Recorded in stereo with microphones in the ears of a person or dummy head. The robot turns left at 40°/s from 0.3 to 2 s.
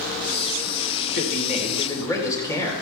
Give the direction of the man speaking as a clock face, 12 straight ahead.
10 o'clock.